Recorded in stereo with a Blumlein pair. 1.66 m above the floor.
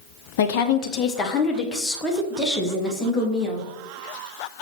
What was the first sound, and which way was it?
A woman speaking, 50° left.